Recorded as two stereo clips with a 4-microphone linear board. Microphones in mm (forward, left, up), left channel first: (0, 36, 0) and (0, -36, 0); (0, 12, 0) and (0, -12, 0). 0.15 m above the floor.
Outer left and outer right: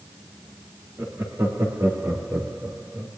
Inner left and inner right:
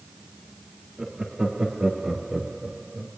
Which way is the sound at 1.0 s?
45° right (ahead or behind).